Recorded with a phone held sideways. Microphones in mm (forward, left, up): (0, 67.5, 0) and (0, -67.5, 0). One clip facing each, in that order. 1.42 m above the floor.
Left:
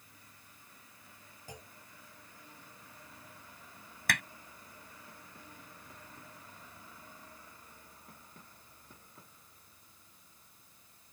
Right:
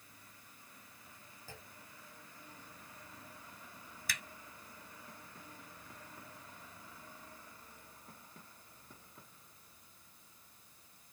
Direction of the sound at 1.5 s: 15° left (ahead or behind).